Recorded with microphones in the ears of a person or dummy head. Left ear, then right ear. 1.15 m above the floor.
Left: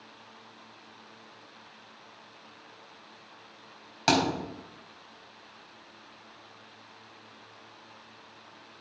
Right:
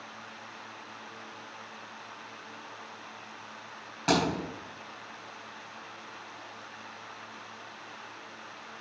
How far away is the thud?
About 4 m.